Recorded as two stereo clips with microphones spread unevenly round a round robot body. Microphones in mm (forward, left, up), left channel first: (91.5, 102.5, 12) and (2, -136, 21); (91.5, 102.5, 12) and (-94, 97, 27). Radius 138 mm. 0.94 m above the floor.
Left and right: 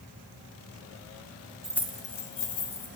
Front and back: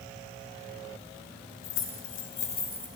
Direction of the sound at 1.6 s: 25° right.